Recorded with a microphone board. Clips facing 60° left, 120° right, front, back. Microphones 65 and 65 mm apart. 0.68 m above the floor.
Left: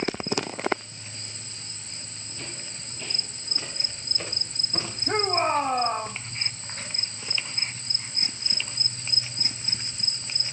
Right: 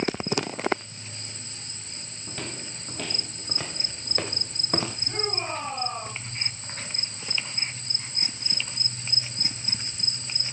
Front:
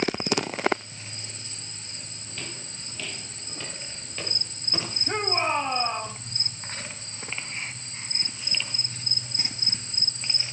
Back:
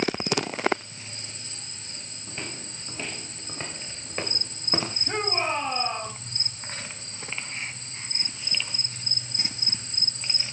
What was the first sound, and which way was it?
Footsteps, 120° right.